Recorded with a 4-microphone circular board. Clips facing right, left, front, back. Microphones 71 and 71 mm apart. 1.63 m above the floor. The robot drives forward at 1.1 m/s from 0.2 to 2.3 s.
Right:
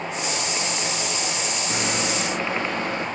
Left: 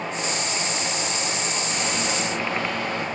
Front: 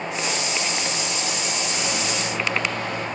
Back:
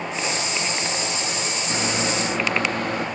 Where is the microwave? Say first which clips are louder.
Right 2 dB, back 6 dB; 135° right, 1.3 m; by 3.0 s 150° right, 1.8 m.